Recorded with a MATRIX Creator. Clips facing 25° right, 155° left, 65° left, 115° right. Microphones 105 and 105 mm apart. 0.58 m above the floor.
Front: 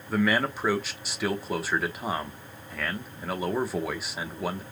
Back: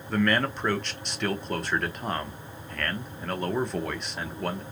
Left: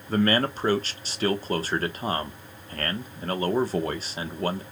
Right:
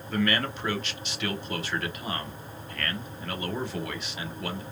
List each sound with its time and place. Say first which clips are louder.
0.1 s a man speaking: even, left 4 dB; 60° left, 1.0 m